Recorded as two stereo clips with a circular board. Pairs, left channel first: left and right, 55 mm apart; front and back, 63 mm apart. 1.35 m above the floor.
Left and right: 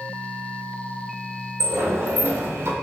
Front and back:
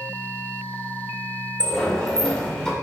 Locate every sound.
1.6 s a sliding door: 75° right, 1.7 m